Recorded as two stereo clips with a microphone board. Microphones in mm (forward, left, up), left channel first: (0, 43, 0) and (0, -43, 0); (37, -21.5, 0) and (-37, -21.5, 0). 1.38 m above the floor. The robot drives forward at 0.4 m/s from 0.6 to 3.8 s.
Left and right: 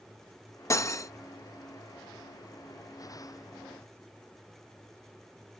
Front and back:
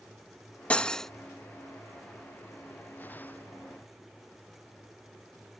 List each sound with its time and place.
0.7 s cutlery clinking: 65° left; by 1.1 s 85° left